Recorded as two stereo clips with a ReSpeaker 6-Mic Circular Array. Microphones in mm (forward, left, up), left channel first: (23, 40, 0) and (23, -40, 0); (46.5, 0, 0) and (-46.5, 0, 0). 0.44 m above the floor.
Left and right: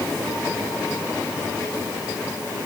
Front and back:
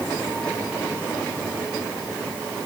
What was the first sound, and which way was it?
Only background noise.